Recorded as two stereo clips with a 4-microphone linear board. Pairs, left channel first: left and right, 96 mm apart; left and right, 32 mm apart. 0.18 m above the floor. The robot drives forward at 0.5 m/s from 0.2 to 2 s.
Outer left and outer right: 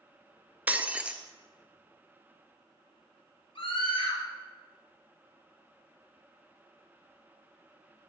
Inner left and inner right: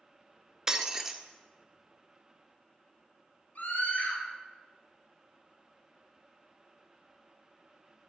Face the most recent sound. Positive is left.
turn(degrees=65)  # may be behind; listen again after turning